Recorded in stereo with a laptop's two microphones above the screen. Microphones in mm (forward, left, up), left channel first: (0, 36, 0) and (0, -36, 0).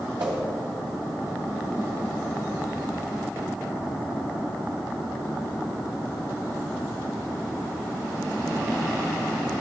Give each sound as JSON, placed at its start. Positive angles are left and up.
{"t": 0.2, "sound": "a whoosh", "side_deg": -80, "distance_m": 2.5}